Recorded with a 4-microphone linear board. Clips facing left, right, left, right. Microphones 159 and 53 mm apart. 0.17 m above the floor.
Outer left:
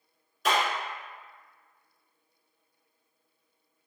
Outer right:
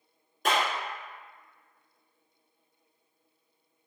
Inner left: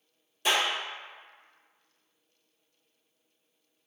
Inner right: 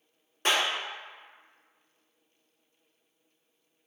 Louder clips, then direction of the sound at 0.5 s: Outer left 1 dB, even; 50° right (ahead or behind).